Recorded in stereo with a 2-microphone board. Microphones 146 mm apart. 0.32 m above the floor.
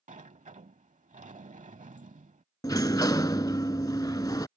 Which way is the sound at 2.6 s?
25° left (ahead or behind).